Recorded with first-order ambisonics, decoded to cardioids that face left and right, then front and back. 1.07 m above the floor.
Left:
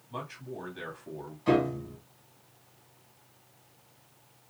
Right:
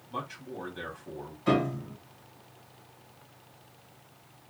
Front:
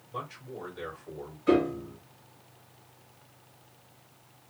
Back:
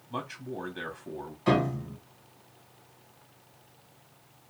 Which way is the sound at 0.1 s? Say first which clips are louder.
Right 2 dB, back 2 dB; 170° right.